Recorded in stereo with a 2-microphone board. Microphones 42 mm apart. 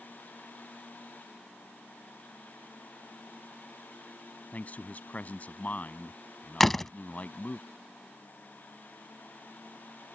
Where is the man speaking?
40° left (ahead or behind).